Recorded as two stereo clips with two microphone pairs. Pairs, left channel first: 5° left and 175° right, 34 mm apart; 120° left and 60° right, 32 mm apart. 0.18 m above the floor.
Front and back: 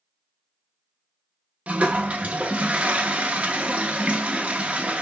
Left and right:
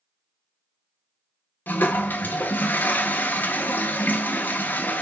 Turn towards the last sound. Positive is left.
turn(degrees=130)